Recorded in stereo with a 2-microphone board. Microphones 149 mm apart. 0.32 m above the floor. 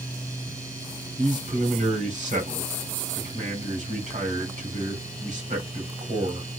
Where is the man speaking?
60° right (ahead or behind), 2.5 m.